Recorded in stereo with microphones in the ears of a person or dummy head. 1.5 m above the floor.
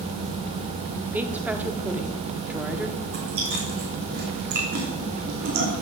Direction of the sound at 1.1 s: 5° right (ahead or behind).